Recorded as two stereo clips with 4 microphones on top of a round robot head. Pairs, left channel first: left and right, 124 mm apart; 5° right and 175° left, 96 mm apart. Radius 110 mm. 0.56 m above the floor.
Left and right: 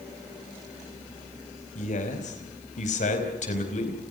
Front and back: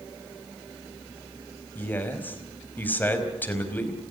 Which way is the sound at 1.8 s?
65° left.